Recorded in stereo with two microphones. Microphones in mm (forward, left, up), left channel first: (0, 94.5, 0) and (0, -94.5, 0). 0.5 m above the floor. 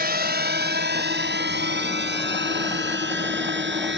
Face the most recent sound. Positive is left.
turn(degrees=-75)  # may be behind; listen again after turning